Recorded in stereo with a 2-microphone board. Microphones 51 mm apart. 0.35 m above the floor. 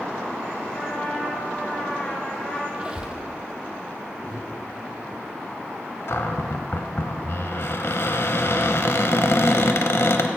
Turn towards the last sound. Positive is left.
turn(degrees=55)  # may be behind; listen again after turning